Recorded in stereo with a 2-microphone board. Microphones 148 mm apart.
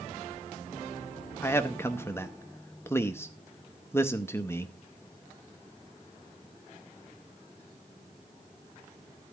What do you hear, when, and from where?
1.4 s a man speaking: 15° left (ahead or behind), 0.7 m